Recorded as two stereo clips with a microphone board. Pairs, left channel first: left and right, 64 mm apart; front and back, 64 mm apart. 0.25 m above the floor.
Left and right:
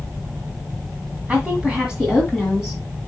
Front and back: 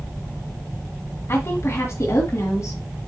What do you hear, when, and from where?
1.3 s a woman speaking: 25° right, 1.7 m; by 2.8 s straight ahead, 2 m